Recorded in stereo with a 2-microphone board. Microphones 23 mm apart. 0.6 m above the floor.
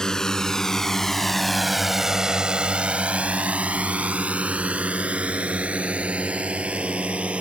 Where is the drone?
30° left (ahead or behind); by 7.4 s 65° right (ahead or behind).